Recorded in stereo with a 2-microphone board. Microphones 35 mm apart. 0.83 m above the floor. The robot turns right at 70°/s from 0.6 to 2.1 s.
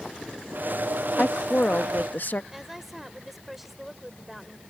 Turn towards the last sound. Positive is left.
turn(degrees=-5)  # may be behind; listen again after turning